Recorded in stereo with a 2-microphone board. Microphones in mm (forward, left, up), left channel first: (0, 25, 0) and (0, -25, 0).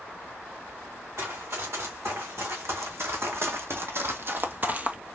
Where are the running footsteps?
65° right (ahead or behind), 3 m; by 5.0 s 25° right (ahead or behind), 0.7 m.